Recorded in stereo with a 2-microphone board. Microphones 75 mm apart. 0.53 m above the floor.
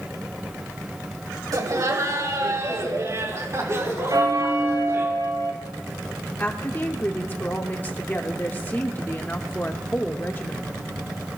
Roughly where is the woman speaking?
Left.